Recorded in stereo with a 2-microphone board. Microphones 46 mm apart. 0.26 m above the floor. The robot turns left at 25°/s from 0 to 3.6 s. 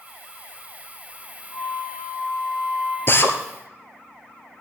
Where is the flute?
80° left, 5 m; by 3.0 s 40° left, 5 m.